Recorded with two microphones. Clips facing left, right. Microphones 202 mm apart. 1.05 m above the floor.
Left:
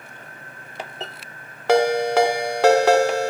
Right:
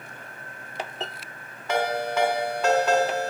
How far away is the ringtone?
About 0.8 m.